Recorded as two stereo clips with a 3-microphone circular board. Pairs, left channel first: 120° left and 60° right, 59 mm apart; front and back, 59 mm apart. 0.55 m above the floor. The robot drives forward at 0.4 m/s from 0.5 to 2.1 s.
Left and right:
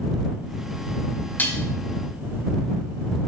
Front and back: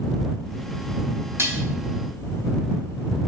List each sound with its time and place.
1.4 s dishes clattering: 165° left, 0.6 m; by 1.6 s 170° left, 0.7 m